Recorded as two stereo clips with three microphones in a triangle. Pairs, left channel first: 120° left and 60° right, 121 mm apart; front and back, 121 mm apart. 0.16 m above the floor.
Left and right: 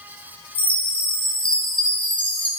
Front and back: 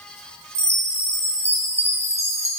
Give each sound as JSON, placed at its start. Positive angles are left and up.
{"t": 0.6, "sound": "a chime", "azimuth_deg": 160, "distance_m": 1.1}